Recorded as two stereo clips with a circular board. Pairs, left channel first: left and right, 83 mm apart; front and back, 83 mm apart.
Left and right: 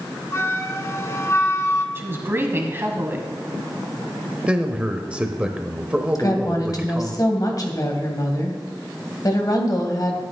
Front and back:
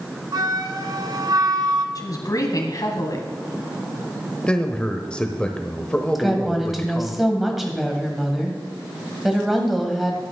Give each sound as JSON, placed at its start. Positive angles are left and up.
{"t": 0.3, "sound": "a flute", "azimuth_deg": 145, "distance_m": 0.9}
{"t": 1.9, "sound": "a woman speaking", "azimuth_deg": -35, "distance_m": 1.6}
{"t": 4.5, "sound": "a man speaking", "azimuth_deg": -45, "distance_m": 0.8}
{"t": 6.2, "sound": "a woman speaking", "azimuth_deg": 90, "distance_m": 1.6}